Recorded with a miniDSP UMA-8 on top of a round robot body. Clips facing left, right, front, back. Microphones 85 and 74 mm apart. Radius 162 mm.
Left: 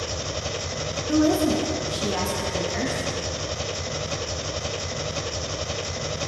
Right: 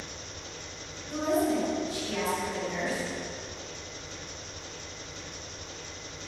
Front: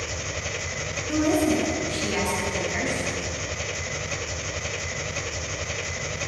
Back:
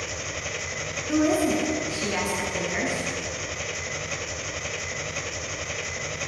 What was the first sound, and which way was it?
An engine running, 90° left.